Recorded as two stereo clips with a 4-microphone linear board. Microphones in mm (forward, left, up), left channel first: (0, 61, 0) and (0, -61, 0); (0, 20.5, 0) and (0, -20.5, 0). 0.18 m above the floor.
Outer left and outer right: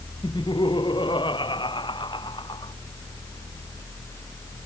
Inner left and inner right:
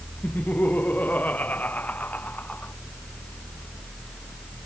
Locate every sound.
0.2 s laughter: 40° left (ahead or behind)